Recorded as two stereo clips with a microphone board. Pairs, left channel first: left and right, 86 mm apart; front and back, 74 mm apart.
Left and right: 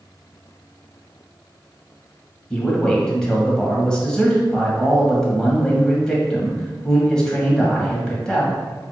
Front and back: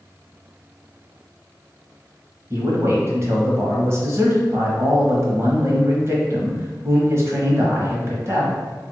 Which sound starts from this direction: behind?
A man speaking, at 2.5 s.